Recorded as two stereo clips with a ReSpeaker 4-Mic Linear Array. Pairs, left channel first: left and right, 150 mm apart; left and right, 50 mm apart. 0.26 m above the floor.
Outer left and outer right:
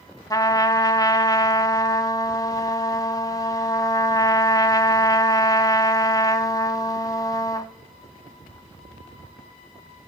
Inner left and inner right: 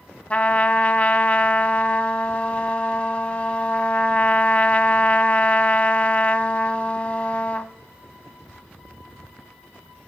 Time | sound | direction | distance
0.3 | a trumpet | 25° left (ahead or behind) | 0.8 m